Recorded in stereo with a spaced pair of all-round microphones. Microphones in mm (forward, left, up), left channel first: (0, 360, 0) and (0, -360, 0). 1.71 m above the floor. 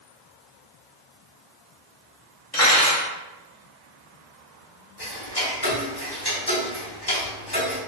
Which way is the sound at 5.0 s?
35° left (ahead or behind).